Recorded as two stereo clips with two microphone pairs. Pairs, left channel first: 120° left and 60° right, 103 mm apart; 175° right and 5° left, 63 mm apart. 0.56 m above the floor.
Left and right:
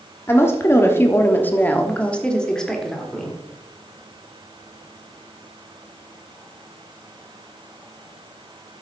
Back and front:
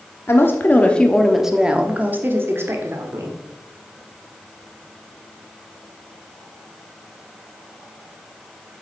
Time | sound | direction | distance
0.3 | a woman speaking | 175° left | 1.2 m